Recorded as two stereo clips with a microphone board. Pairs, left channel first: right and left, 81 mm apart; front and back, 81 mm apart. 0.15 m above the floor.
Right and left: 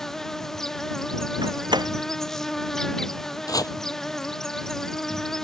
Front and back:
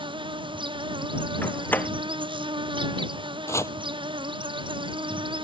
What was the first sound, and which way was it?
An insect, 175° right.